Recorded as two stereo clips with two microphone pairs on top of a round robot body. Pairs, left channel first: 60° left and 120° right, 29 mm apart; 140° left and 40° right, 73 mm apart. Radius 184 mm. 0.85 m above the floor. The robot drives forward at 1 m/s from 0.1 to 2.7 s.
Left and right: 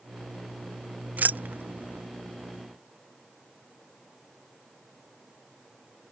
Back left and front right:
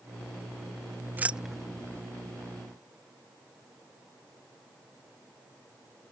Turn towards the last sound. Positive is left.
turn(degrees=-160)